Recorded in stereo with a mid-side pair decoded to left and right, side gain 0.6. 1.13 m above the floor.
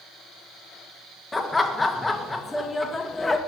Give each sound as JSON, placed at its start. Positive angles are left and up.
{"t": 1.3, "sound": "laughter", "azimuth_deg": 15, "distance_m": 1.1}